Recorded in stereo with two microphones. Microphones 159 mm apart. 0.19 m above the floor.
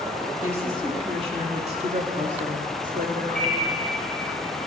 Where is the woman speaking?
15° right (ahead or behind), 1.0 m; by 3.2 s 60° right (ahead or behind), 2.5 m.